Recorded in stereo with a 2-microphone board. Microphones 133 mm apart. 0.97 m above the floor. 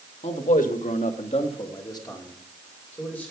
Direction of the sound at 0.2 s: 60° left (ahead or behind).